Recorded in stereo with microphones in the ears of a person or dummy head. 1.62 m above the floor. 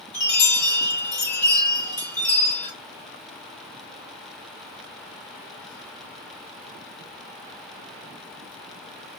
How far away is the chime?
About 4 m.